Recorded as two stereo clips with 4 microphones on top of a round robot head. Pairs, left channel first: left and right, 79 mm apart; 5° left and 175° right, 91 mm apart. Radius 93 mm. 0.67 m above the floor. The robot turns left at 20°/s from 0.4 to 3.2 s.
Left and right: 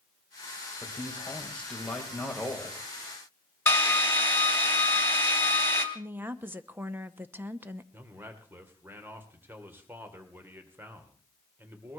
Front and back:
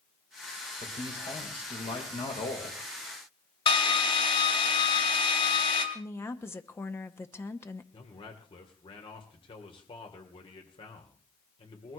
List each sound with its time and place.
0.8 s a man speaking: 30° left, 4 m; by 2.8 s 10° right, 4 m
3.7 s a drill: 30° left, 3 m
6.0 s a woman speaking: 40° right, 1.1 m
7.9 s a man speaking: 25° right, 2.5 m